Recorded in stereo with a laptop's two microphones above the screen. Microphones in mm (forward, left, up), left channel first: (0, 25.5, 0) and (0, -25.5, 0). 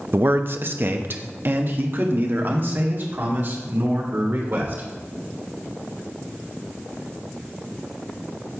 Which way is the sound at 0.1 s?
45° right (ahead or behind).